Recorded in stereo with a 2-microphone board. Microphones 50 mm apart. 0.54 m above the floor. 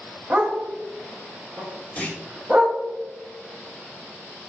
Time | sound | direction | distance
0.3 | a dog barking | 20° right (ahead or behind) | 0.8 m
2.0 | a clunk | 30° left (ahead or behind) | 0.7 m